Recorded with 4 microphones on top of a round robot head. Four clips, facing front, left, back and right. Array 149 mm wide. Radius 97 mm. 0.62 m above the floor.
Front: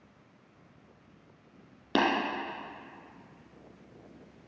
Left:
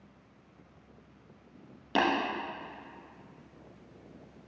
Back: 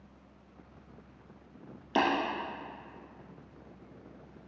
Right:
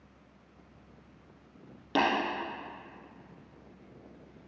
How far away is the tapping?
About 3.5 m.